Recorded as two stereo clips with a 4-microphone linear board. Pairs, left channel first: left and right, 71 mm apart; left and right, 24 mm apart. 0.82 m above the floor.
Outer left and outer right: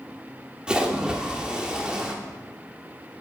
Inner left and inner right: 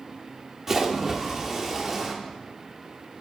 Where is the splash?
15° right (ahead or behind), 1.0 m.